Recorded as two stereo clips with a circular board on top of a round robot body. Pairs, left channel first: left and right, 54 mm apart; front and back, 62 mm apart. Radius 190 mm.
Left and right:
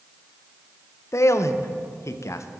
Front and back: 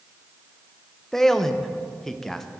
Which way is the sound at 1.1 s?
80° left.